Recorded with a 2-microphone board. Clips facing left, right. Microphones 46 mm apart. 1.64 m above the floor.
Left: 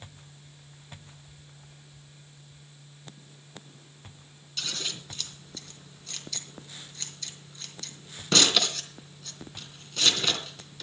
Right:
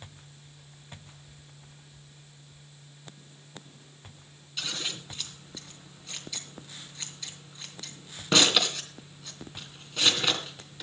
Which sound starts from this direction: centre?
Scissors, at 4.6 s.